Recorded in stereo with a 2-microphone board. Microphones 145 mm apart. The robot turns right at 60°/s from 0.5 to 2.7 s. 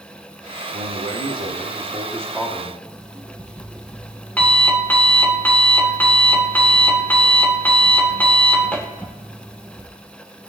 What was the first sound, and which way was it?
A man speaking, 105° right.